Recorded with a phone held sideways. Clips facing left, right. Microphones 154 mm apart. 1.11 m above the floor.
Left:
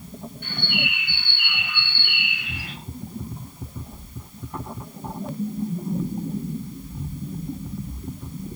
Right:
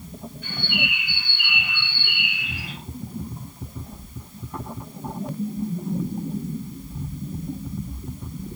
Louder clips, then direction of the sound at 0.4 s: Even; 65° left (ahead or behind).